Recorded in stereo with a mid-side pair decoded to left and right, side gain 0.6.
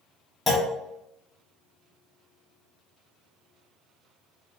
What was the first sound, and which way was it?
A clunk, 15° left.